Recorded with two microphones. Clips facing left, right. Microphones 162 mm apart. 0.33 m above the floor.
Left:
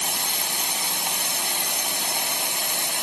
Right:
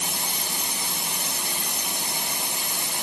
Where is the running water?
70° left (ahead or behind), 0.8 m.